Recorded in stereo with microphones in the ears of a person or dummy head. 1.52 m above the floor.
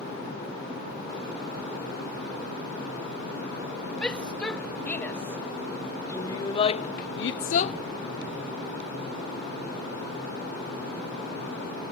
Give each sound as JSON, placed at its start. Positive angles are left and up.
{"t": 4.0, "sound": "a shout", "side_deg": 10}